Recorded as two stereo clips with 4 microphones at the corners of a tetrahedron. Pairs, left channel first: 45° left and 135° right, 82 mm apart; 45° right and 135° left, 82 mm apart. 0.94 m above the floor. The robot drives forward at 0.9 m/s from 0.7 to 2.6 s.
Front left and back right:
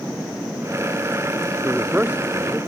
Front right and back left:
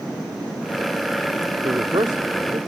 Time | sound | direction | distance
1.6 | a man speaking | 145° left | ?